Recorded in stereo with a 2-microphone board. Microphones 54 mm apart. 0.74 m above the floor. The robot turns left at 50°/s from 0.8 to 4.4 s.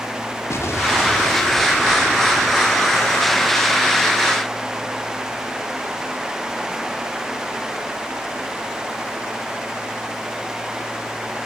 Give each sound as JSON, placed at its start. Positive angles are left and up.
{"t": 0.5, "sound": "an explosion", "azimuth_deg": 80}